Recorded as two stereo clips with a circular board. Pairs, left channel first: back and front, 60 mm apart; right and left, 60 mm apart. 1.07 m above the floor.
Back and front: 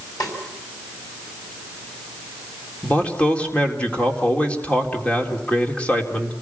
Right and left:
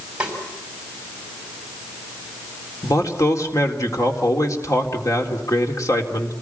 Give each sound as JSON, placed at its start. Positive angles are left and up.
{"t": 0.2, "sound": "a snare drum", "azimuth_deg": 160, "distance_m": 5.5}
{"t": 2.8, "sound": "a man speaking", "azimuth_deg": -110, "distance_m": 3.5}